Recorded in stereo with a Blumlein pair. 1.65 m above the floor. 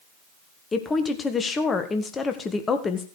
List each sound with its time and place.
0.7 s a woman speaking: 15° left, 1.4 m